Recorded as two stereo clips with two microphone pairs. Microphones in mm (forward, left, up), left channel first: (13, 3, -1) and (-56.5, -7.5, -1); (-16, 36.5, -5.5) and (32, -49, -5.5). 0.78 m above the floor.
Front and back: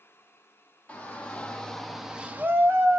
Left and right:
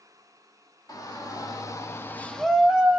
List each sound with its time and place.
0.9 s a shout: 75° left, 1.3 m; by 3.0 s 130° right, 0.9 m